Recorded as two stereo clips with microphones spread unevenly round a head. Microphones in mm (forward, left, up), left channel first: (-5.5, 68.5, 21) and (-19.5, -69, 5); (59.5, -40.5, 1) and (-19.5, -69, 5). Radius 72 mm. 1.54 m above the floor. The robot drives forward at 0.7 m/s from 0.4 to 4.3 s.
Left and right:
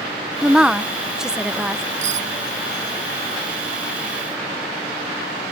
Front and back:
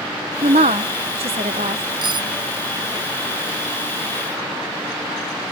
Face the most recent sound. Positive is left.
turn(degrees=-140)